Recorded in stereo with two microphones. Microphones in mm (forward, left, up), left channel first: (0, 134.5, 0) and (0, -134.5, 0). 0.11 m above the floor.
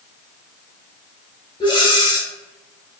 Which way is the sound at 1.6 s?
20° left (ahead or behind).